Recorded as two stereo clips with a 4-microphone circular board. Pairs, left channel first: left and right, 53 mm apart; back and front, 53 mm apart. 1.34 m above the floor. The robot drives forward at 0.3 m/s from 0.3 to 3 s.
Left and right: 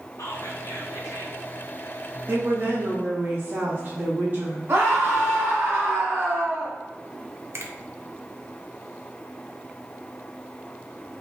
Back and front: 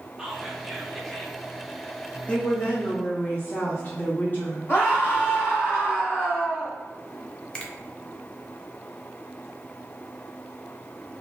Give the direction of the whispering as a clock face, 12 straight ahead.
9 o'clock.